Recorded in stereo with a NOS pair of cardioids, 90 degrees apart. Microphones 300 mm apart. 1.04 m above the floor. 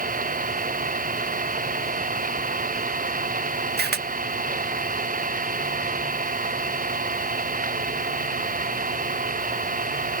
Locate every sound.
0.0 s an engine running: 25° right
3.8 s a camera shutter: 35° right